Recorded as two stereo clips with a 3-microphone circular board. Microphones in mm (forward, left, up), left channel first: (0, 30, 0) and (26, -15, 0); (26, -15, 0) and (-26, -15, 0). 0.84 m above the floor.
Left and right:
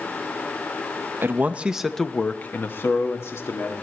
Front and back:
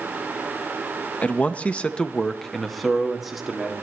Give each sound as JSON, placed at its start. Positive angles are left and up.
{"t": 1.2, "sound": "a man speaking", "azimuth_deg": -50, "distance_m": 0.8}